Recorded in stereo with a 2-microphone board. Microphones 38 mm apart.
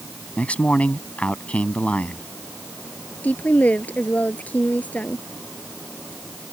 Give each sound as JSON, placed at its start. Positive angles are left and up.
{"t": 0.4, "sound": "a man speaking", "side_deg": 30}
{"t": 3.2, "sound": "a woman speaking", "side_deg": 45}